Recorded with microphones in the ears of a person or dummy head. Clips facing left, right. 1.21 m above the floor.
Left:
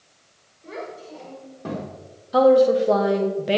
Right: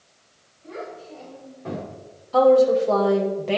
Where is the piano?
No piano in this recording.